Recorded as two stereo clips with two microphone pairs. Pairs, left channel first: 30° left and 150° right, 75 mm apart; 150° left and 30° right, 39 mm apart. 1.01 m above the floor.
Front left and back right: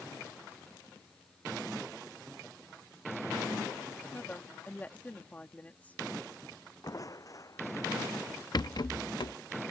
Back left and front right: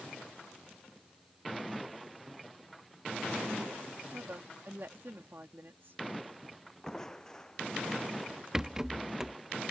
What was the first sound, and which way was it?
A woman speaking, 35° right.